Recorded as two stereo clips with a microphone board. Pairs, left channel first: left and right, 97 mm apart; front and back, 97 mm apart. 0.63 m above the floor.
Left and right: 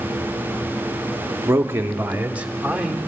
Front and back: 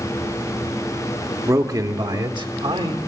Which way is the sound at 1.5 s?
135° right.